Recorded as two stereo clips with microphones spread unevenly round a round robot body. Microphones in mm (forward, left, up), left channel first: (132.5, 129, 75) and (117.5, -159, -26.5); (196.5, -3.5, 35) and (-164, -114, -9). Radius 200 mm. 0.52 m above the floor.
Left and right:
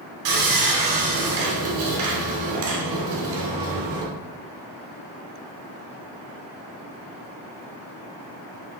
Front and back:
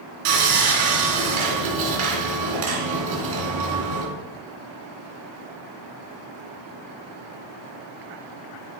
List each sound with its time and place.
0.2 s sawing: 135° right, 2.5 m